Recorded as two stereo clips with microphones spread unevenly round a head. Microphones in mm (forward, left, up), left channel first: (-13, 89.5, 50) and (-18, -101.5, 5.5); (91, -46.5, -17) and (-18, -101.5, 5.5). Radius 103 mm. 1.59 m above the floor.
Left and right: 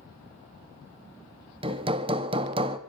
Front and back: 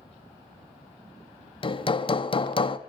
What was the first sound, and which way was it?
Hammering, 20° right.